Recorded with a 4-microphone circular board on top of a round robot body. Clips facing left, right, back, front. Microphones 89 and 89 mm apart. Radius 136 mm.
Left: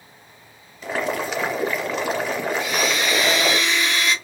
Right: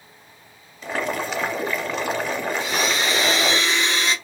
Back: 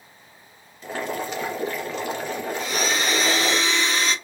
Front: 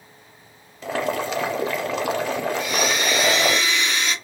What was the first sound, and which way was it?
Boiling, straight ahead.